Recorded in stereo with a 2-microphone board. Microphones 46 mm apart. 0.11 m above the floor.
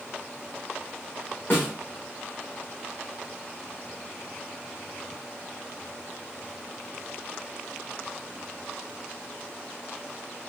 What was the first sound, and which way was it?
A snare drum, 45° left (ahead or behind).